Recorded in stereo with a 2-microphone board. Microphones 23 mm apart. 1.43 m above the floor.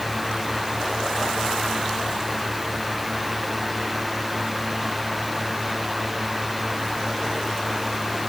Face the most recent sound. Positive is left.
No sound to turn to.